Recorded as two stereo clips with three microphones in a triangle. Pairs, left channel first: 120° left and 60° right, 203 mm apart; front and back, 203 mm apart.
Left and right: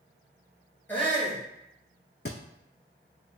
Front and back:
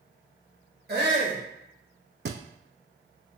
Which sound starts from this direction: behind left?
A thud, at 2.2 s.